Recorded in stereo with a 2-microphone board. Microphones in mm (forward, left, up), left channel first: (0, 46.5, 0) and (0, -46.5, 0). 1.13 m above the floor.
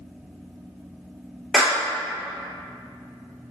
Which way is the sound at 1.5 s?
5° right (ahead or behind).